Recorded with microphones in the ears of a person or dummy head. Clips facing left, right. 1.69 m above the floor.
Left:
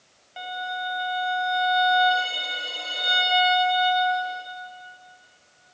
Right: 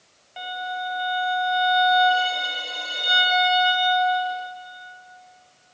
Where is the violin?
10° left (ahead or behind), 0.8 m.